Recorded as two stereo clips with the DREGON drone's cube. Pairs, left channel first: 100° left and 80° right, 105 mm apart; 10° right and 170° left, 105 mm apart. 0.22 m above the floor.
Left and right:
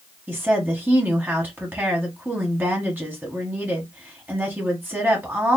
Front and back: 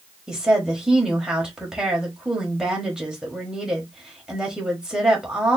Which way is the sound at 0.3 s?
115° right.